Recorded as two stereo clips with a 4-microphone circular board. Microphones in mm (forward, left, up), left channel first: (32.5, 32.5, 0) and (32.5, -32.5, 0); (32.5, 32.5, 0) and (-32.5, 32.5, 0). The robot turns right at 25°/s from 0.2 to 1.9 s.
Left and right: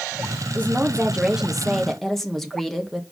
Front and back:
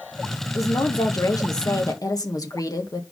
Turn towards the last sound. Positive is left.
turn(degrees=5)